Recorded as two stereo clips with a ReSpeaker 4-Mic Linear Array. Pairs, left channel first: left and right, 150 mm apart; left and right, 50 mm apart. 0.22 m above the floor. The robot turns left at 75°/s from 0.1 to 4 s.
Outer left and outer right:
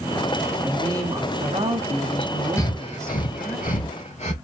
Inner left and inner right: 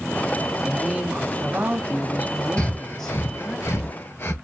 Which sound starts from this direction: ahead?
A woman speaking, at 0.6 s.